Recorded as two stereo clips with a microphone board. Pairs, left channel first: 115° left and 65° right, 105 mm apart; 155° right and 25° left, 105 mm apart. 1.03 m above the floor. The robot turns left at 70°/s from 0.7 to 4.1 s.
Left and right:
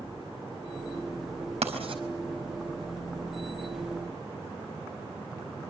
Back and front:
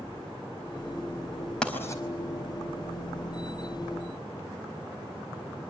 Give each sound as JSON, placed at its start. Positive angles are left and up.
{"t": 1.6, "sound": "writing", "azimuth_deg": -75, "distance_m": 4.5}